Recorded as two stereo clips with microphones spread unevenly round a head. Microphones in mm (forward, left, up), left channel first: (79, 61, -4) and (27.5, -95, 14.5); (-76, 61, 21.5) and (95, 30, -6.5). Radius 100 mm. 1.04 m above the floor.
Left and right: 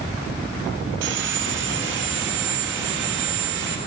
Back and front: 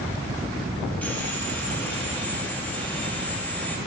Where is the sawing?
110° right, 0.9 m.